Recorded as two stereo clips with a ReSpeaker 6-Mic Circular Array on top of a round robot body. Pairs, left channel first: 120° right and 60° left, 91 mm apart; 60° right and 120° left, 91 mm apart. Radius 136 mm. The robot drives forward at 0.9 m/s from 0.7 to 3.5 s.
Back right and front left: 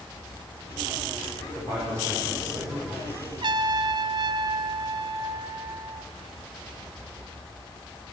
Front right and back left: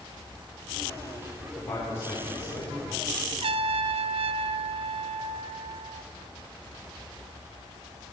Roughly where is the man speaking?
Ahead.